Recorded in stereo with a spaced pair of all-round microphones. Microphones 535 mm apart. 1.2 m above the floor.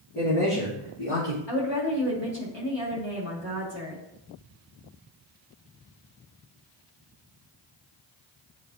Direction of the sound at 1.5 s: 55° left (ahead or behind).